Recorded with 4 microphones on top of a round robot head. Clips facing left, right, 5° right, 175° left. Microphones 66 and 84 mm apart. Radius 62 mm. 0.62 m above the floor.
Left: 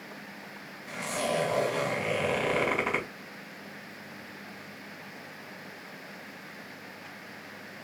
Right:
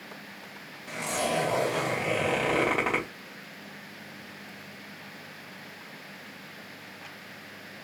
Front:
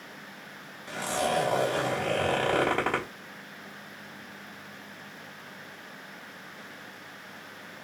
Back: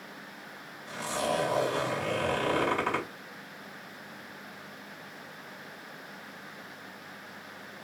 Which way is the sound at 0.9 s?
35° right.